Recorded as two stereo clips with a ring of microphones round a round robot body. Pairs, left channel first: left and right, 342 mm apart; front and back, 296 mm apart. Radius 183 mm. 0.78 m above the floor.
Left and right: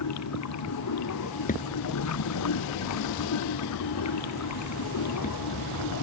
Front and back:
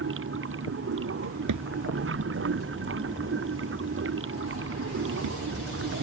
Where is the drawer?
160° left.